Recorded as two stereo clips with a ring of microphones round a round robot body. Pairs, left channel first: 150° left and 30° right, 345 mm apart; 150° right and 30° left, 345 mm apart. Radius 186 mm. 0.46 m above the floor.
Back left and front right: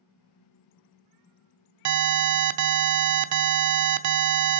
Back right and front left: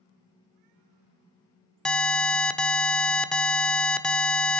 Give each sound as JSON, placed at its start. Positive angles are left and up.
{"t": 1.9, "sound": "an alarm", "azimuth_deg": -60, "distance_m": 0.8}